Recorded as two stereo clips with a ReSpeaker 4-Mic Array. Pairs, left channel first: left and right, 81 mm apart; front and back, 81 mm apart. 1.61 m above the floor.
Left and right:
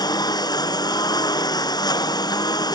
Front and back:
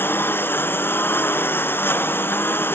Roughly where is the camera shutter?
I don't hear a camera shutter.